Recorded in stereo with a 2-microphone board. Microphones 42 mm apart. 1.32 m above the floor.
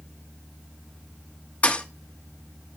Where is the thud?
30° left (ahead or behind), 0.8 m.